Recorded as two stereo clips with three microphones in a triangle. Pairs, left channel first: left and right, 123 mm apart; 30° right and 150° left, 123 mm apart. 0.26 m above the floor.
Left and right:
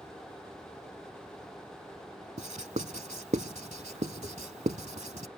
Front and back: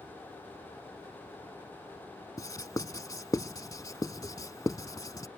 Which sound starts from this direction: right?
Writing, at 2.4 s.